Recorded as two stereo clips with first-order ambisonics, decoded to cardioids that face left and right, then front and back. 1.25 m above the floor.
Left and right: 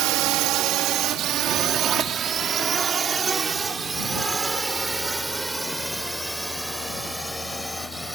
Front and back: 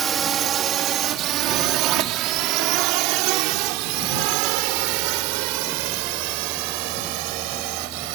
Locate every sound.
0.0 s a drone: 115° right; by 8.2 s straight behind